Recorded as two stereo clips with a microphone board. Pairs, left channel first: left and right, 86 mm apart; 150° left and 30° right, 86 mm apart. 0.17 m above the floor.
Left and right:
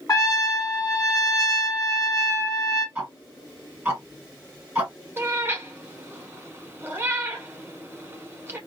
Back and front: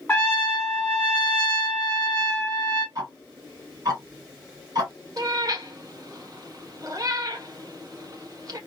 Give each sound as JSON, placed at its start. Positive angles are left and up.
{"t": 0.1, "sound": "a trumpet", "azimuth_deg": 100, "distance_m": 1.4}
{"t": 3.0, "sound": "ticking", "azimuth_deg": -25, "distance_m": 1.9}
{"t": 5.2, "sound": "a cat meowing", "azimuth_deg": -40, "distance_m": 0.7}